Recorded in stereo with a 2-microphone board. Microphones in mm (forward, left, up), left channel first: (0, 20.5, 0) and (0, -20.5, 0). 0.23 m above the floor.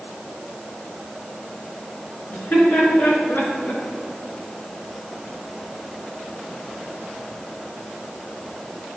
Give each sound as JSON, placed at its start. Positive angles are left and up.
{"t": 2.3, "sound": "laughter", "side_deg": 40, "distance_m": 3.0}